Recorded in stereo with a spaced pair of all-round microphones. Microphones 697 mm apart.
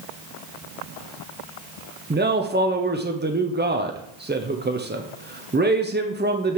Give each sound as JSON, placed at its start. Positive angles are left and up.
{"t": 2.1, "sound": "a man speaking", "side_deg": -15, "distance_m": 0.6}